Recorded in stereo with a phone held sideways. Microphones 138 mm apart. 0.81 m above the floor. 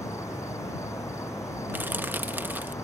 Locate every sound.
0.0 s an insect: 20° left (ahead or behind)
1.7 s crushing: 15° right (ahead or behind)